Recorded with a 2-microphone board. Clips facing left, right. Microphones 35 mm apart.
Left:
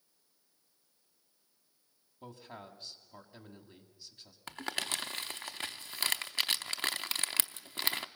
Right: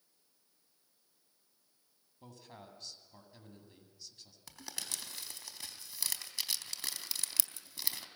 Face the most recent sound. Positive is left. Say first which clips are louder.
# left 9 dB
turn(degrees=45)  # may be behind; listen again after turning